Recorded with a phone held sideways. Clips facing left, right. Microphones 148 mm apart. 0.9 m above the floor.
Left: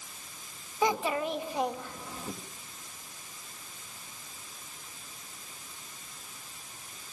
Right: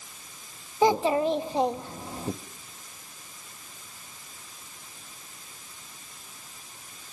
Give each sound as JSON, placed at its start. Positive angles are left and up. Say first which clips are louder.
{"t": 0.8, "sound": "a child speaking", "louder": "right 7 dB", "side_deg": -30, "distance_m": 0.7}